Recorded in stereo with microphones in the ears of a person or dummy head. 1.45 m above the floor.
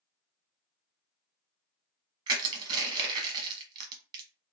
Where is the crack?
I don't hear a crack.